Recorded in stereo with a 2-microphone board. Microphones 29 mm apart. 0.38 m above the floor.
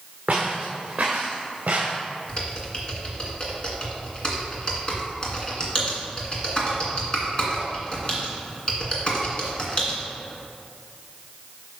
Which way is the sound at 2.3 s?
35° left (ahead or behind).